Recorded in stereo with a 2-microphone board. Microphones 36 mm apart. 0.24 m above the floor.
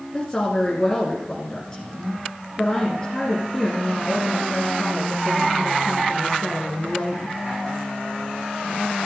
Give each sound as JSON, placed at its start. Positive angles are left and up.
{"t": 0.1, "sound": "a woman speaking", "side_deg": 20, "distance_m": 2.5}